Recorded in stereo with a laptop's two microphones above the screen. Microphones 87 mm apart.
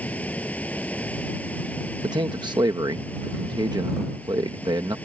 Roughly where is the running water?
Centre.